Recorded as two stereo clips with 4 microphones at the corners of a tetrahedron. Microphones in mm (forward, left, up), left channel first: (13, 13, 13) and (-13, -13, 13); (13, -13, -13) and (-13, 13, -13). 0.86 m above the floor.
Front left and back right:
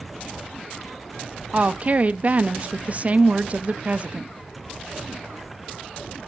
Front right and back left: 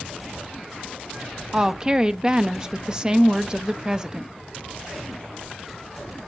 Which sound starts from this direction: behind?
A woman speaking, at 1.5 s.